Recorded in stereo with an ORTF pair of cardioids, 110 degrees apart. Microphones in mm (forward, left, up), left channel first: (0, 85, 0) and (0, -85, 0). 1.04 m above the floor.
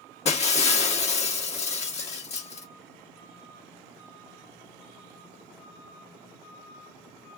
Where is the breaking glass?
40° left, 1.4 m.